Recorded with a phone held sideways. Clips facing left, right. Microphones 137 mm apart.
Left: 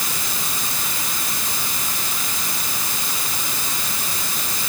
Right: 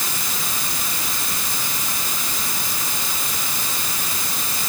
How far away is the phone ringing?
I don't hear a phone ringing.